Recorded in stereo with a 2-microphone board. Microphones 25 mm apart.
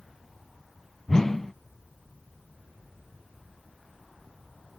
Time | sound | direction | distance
1.1 | a whoosh | 15° left (ahead or behind) | 0.5 m